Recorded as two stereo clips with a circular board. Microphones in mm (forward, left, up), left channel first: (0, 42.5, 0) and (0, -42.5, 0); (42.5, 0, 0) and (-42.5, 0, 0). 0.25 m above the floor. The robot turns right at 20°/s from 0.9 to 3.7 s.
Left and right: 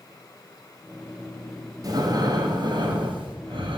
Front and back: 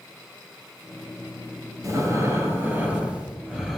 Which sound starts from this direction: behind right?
Breathing, at 1.8 s.